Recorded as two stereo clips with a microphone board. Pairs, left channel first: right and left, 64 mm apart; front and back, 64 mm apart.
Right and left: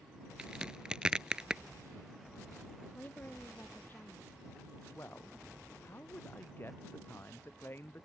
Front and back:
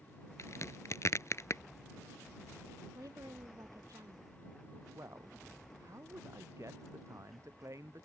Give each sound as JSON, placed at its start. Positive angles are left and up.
{"t": 0.4, "sound": "a crack", "azimuth_deg": 15}
{"t": 3.0, "sound": "a woman speaking", "azimuth_deg": -150}
{"t": 5.0, "sound": "a man speaking", "azimuth_deg": -145}